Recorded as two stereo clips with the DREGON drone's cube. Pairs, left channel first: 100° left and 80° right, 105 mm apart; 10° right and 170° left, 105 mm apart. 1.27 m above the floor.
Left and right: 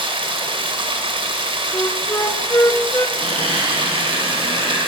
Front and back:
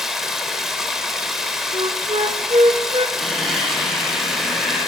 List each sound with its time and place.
0.0 s running water: 105° right, 3 m
1.7 s a flute: 160° left, 1.1 m
3.2 s a squeak: 100° right, 9 m